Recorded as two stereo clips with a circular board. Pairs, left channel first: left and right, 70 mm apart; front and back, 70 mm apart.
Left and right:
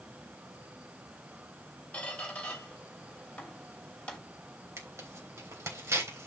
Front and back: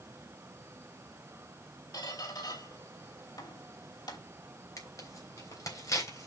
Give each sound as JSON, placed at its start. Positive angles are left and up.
{"t": 1.9, "sound": "a squeak", "azimuth_deg": 20, "distance_m": 3.0}
{"t": 4.8, "sound": "tearing paper", "azimuth_deg": -40, "distance_m": 3.5}